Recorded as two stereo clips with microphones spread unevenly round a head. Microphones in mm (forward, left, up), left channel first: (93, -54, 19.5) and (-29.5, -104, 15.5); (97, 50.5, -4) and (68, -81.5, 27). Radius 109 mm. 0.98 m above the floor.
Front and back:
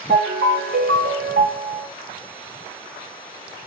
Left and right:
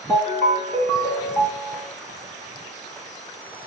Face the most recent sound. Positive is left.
turn(degrees=160)